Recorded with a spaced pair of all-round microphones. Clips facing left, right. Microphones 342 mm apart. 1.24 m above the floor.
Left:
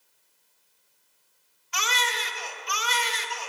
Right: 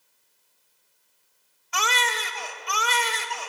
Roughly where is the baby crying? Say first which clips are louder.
Right 3 dB; right.